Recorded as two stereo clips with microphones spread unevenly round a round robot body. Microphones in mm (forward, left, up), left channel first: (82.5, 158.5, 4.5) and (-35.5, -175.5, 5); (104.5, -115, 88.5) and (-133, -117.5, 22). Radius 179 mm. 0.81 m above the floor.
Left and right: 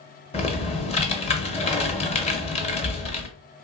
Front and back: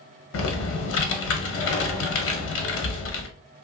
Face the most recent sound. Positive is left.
turn(degrees=0)